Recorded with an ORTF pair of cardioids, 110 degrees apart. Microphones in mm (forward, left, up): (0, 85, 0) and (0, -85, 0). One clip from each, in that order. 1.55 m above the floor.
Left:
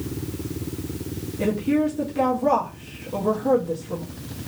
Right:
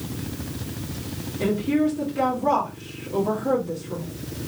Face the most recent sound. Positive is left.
turn(degrees=25)